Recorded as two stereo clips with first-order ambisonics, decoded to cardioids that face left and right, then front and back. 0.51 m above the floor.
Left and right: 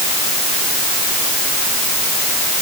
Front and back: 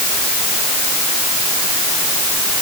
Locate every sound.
Only background noise.